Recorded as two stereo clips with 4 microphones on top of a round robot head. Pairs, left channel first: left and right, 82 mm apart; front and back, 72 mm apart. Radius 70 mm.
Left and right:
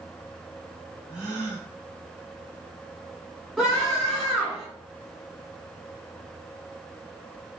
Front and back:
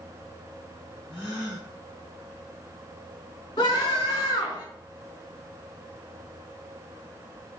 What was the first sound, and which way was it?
A gasp, 10° right.